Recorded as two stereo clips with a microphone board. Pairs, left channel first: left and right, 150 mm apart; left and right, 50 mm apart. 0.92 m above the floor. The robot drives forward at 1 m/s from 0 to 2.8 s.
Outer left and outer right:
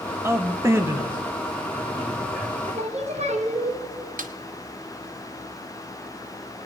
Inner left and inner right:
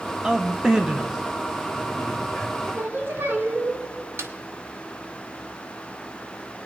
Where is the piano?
I don't hear a piano.